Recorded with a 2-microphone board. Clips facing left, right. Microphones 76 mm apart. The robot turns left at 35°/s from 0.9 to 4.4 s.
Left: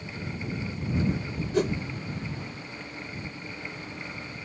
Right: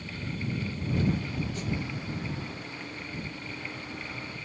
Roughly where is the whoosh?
Left.